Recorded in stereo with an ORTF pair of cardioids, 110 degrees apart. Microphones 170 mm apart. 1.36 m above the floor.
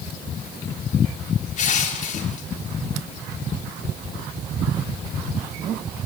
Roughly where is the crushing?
Ahead left.